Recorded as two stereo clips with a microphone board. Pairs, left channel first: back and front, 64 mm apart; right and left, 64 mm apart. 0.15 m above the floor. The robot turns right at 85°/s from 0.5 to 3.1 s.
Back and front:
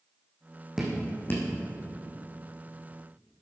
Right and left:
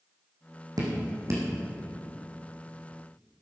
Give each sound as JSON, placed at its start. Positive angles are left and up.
{"t": 0.8, "sound": "dripping", "azimuth_deg": 85, "distance_m": 4.0}